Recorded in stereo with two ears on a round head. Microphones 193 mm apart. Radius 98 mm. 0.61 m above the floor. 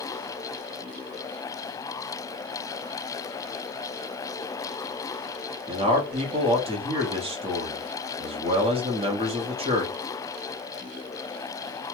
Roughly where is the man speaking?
Right.